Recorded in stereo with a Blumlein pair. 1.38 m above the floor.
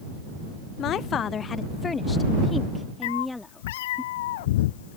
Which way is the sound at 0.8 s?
35° left.